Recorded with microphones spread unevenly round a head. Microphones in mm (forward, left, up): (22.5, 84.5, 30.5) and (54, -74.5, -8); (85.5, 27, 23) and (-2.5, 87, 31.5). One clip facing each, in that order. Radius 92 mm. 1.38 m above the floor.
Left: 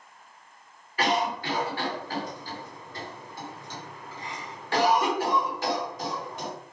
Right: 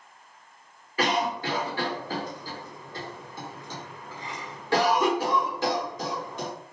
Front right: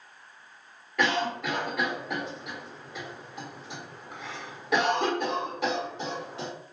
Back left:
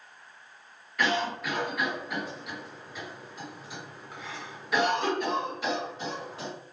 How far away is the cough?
About 1.2 m.